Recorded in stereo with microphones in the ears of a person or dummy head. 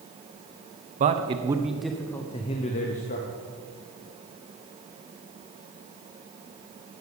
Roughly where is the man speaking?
Right.